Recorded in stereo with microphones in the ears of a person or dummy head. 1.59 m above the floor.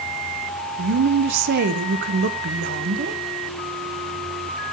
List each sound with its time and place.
0.8 s a woman speaking: 60° right (ahead or behind), 1.1 m